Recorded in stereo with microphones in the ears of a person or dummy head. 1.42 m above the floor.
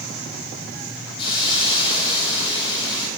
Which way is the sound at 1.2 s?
35° left (ahead or behind).